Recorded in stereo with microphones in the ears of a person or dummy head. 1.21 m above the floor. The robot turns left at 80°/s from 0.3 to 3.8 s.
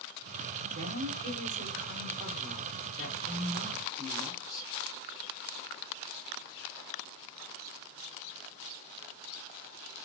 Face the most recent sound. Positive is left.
turn(degrees=20)